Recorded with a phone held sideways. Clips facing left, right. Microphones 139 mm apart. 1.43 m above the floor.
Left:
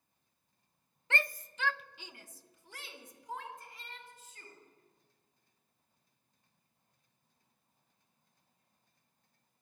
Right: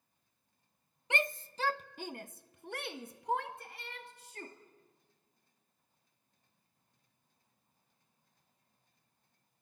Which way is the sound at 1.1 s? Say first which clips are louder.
Right 2 dB; 15° right (ahead or behind).